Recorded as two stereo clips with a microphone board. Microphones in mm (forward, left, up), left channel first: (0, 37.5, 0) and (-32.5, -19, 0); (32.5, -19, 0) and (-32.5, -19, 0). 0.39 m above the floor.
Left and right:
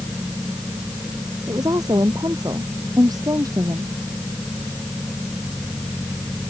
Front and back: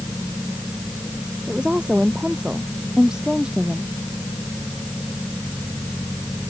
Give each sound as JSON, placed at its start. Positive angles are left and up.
{"t": 1.5, "sound": "a woman speaking", "azimuth_deg": -105}